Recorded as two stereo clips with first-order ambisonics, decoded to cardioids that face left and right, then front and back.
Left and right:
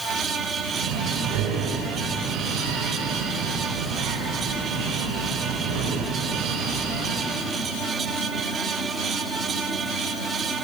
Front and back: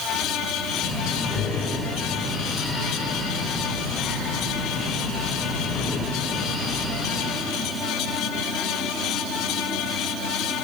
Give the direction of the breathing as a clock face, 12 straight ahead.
3 o'clock.